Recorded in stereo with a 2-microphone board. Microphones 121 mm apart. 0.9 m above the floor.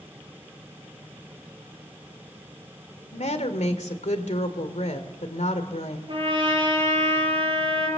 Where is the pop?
I don't hear a pop.